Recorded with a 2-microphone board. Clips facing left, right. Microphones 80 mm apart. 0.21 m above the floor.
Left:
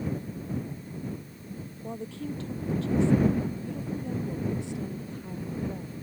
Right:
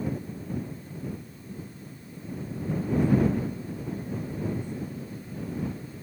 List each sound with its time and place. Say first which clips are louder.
1.8 s a woman speaking: left 6 dB; 75° left (ahead or behind)